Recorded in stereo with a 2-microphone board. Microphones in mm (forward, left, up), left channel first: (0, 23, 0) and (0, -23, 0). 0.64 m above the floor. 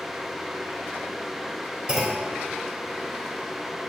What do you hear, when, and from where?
1.9 s a clunk: 20° right (ahead or behind), 3 m